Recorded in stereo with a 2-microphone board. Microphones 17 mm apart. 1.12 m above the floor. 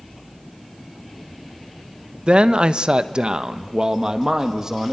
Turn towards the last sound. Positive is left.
turn(degrees=-30)  # may be behind; listen again after turning